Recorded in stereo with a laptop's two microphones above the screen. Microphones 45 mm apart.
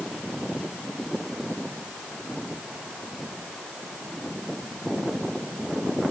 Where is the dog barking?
No dog barking in this recording.